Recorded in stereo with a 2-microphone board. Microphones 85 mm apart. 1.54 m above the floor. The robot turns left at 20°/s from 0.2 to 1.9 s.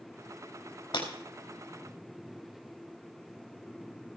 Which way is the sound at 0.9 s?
70° left (ahead or behind).